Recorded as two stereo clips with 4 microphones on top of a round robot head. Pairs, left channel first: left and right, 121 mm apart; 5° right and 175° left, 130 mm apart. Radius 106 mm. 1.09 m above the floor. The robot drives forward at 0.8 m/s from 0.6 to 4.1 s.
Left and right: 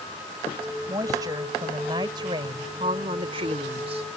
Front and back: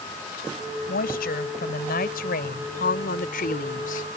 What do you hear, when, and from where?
0.9 s a woman speaking: 20° right; by 4.1 s 40° right